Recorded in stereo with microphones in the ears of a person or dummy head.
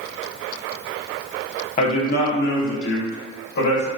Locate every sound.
1.8 s a man speaking: 50° left (ahead or behind), 1.5 m; by 3.9 s 75° left (ahead or behind), 2.5 m